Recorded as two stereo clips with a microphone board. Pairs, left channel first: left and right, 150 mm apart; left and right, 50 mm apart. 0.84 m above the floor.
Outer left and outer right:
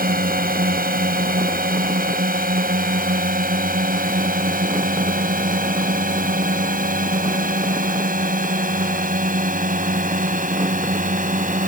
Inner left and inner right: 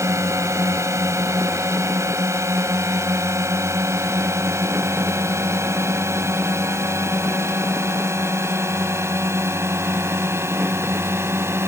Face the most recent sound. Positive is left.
turn(degrees=-60)  # may be behind; listen again after turning